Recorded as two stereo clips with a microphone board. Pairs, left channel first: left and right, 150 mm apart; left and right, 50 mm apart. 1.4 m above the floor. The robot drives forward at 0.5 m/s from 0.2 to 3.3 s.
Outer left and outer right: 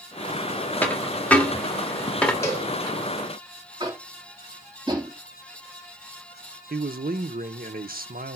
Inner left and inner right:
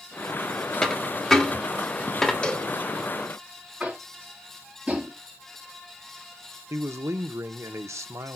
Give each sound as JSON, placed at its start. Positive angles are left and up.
{"t": 0.8, "sound": "a dropped coin", "side_deg": 10, "distance_m": 1.9}
{"t": 2.4, "sound": "a cowbell", "side_deg": 20, "distance_m": 1.7}
{"t": 3.8, "sound": "tapping", "side_deg": -30, "distance_m": 3.5}
{"t": 6.7, "sound": "a man speaking", "side_deg": -75, "distance_m": 0.9}